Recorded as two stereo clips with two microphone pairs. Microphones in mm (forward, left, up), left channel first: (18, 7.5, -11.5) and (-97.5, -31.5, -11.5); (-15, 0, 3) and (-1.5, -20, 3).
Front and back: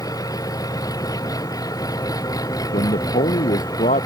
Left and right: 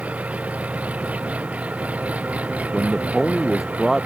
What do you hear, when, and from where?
0.0 s an engine running: 45° right
2.7 s a man speaking: 30° left